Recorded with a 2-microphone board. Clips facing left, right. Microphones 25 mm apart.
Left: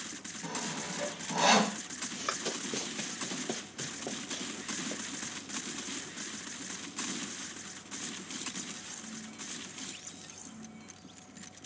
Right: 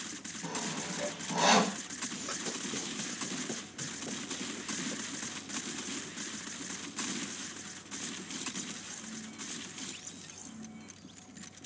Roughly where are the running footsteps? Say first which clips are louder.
Left 4 dB; left.